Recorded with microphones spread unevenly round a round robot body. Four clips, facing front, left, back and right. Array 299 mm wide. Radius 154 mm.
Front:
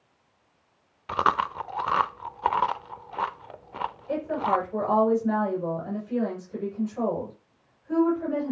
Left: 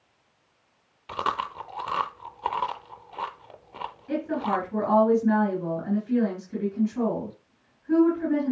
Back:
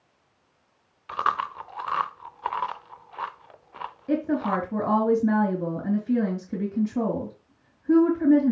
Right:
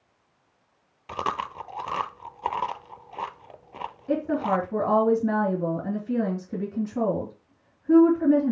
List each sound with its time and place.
1.1 s chewing: 10° right, 0.6 m
4.1 s a woman speaking: 155° right, 4.5 m